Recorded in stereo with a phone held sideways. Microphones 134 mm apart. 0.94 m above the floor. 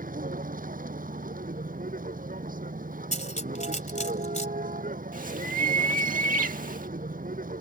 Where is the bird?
85° right.